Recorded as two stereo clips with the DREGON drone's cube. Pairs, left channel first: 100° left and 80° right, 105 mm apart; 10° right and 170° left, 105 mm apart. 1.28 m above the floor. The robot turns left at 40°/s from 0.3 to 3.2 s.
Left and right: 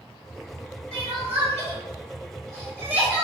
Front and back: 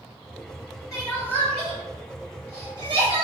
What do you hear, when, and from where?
0.9 s crying: 70° right, 1.5 m; by 3.2 s 160° right, 1.5 m